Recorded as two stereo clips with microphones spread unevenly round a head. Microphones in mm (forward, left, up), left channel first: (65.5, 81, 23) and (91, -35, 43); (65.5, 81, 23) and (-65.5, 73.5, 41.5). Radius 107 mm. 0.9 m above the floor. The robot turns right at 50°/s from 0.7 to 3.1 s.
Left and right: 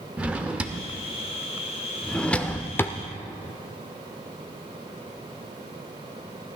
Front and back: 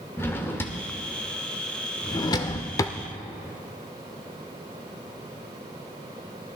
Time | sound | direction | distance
0.2 | a drawer | 70° right | 0.5 m